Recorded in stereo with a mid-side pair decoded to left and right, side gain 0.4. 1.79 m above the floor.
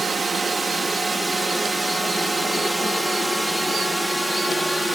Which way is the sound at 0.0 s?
35° right.